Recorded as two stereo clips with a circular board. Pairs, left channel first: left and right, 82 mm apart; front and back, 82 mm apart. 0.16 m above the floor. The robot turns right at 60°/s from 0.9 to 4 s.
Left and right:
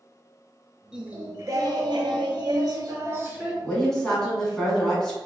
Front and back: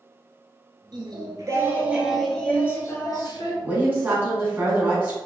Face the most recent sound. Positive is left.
turn(degrees=165)